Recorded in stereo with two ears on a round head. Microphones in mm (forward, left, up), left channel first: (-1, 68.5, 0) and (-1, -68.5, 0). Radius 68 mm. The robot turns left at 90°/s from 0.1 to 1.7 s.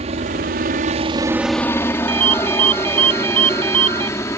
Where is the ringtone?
35° right (ahead or behind).